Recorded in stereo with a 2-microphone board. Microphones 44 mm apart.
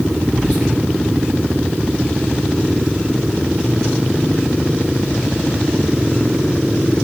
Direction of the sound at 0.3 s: 20° right (ahead or behind).